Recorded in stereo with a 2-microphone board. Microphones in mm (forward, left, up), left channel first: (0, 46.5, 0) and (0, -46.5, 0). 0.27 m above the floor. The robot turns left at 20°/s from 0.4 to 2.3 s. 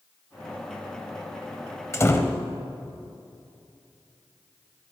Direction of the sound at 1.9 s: 30° left (ahead or behind).